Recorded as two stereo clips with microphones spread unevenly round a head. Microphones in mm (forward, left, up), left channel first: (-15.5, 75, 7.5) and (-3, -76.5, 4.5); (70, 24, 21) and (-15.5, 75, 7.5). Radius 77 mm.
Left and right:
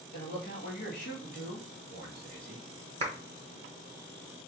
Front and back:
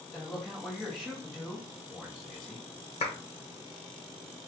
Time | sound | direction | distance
0.1 | a man speaking | 55° left | 1.6 m
3.0 | a clap | 35° right | 1.3 m